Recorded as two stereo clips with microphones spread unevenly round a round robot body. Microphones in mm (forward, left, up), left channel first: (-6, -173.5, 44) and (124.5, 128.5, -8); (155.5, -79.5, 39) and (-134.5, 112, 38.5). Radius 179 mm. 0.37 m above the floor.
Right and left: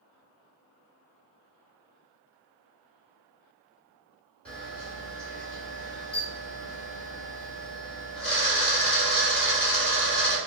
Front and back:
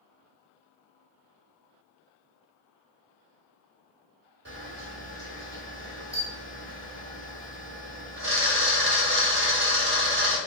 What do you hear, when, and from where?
4.5 s a camera shutter: 145° left, 1.5 m